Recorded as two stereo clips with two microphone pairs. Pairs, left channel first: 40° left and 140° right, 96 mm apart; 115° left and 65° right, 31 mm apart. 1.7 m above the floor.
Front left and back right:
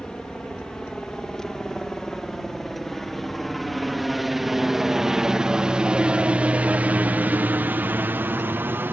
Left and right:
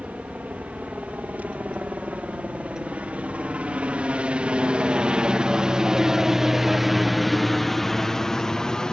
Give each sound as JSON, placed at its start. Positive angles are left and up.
{"t": 0.0, "sound": "a helicopter", "azimuth_deg": -40}